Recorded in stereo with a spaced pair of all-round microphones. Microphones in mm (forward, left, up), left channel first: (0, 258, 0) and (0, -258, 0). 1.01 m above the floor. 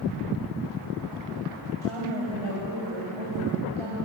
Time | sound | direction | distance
1.8 | a woman speaking | 65° right (ahead or behind) | 6.5 m